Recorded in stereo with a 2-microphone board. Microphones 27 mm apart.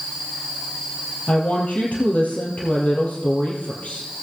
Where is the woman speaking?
60° left (ahead or behind), 3 m.